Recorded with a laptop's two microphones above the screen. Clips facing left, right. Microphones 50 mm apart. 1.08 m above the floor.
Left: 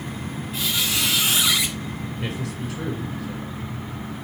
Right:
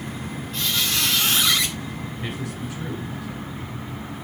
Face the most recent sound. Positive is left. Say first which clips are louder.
# left 1 dB
turn(degrees=85)